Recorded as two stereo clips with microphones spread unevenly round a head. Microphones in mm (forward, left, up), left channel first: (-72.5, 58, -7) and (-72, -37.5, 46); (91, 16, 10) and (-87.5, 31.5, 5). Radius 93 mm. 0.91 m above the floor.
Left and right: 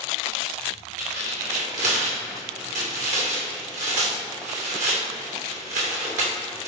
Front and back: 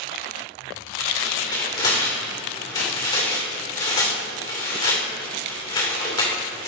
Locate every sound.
1.0 s tearing paper: 75° right, 2.5 m